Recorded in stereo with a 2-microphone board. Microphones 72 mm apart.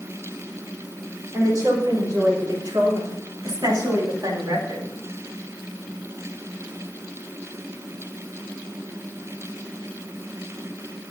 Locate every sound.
1.3 s a woman speaking: 55° right (ahead or behind), 4.5 m; by 4.9 s 80° right, 3 m